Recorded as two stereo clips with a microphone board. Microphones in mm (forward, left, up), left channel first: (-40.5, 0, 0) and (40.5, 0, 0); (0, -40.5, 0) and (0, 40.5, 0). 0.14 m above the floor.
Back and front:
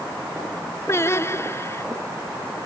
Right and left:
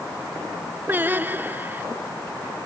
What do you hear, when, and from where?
0.9 s singing: 145° left